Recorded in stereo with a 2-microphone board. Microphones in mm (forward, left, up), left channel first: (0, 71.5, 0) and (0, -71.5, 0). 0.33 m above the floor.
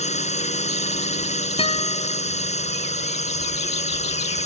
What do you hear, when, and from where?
0.0 s a drone: 50° left (ahead or behind)
1.6 s a guitar: 40° left (ahead or behind)